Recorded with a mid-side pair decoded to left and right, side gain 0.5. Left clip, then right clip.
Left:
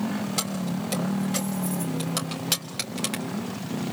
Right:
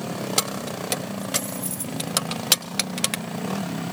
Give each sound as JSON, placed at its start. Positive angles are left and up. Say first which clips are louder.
{"t": 0.4, "sound": "keys jangling", "louder": "right 4 dB", "azimuth_deg": -50, "distance_m": 3.0}